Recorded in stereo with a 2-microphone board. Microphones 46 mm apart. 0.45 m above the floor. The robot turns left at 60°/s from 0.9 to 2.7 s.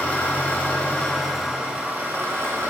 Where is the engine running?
25° left, 3 m; by 2.7 s 80° right, 3 m.